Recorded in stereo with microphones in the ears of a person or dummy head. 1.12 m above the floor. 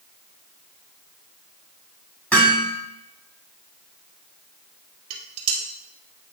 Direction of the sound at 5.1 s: 35° right (ahead or behind).